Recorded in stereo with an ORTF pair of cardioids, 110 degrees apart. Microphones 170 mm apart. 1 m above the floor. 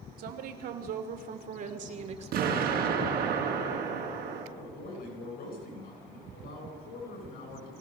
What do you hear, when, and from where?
0.2 s a woman speaking: 65° right, 3.5 m; by 3.1 s 25° right, 3 m
2.3 s an explosion: 60° right, 5 m
4.5 s a man speaking: 55° left, 9 m